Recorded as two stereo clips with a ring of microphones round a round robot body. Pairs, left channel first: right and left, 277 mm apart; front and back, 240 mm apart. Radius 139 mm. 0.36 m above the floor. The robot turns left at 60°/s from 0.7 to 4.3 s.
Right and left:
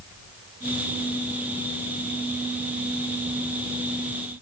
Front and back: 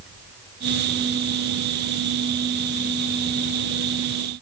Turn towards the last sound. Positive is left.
No sound to turn to.